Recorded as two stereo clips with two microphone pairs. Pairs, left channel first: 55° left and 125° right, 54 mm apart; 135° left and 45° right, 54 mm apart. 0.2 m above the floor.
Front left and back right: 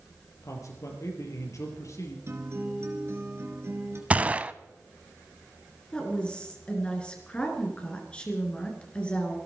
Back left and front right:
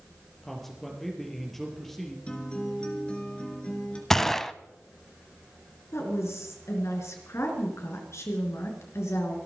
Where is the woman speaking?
120° left, 3.5 m.